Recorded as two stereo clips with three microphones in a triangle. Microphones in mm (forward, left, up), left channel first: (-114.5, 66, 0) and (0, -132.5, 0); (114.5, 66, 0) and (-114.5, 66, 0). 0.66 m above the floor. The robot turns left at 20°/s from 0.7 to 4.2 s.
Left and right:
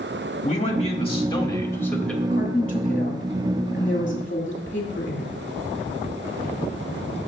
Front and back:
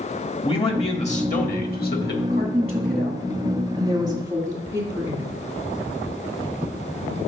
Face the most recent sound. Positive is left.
turn(degrees=130)